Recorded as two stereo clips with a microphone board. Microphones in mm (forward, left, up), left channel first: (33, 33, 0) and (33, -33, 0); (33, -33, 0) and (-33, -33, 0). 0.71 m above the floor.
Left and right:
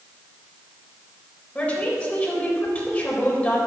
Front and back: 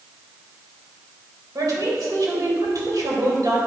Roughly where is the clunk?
I don't hear a clunk.